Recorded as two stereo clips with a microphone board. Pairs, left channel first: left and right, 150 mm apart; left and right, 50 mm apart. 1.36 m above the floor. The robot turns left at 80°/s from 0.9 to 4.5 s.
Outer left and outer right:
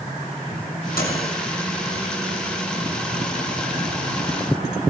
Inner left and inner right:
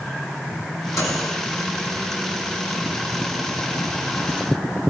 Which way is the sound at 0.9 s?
105° left.